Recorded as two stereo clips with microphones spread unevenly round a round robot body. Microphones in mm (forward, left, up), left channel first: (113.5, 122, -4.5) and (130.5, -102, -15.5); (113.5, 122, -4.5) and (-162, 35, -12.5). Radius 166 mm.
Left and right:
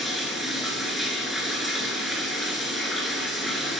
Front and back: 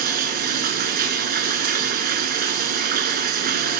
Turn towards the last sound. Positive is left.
turn(degrees=180)